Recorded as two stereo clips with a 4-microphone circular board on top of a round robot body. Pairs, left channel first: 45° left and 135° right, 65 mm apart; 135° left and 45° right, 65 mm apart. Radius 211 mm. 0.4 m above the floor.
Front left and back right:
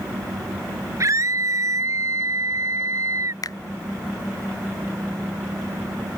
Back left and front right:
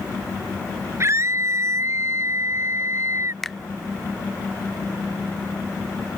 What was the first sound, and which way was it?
A scream, 95° right.